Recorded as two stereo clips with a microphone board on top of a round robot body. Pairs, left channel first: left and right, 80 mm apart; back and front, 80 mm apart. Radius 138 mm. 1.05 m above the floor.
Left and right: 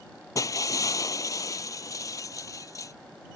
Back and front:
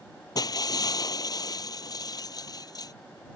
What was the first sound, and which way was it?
Breaking glass, 140° left.